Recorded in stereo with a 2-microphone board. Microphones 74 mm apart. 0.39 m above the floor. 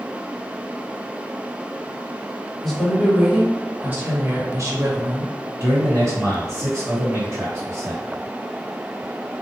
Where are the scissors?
No scissors in this recording.